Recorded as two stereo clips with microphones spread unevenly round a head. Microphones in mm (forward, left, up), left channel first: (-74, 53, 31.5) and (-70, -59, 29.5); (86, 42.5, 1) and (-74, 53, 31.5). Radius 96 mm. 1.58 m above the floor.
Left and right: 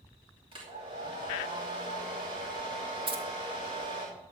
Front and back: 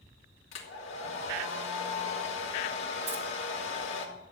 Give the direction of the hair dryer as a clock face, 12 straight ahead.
1 o'clock.